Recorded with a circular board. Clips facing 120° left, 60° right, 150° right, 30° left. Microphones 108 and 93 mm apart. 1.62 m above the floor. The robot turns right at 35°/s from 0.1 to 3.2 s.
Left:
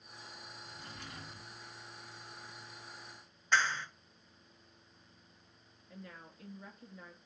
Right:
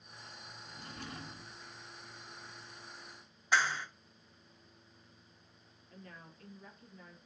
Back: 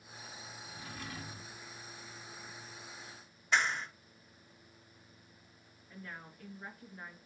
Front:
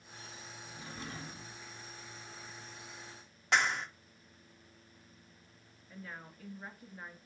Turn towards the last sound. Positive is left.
turn(degrees=110)